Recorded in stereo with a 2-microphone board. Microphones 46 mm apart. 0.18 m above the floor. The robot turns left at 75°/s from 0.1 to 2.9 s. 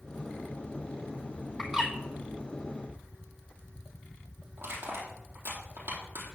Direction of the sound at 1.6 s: Centre (ahead or behind).